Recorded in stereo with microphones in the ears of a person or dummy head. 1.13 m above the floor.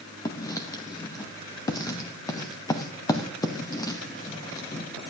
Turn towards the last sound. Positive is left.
turn(degrees=20)  # may be behind; listen again after turning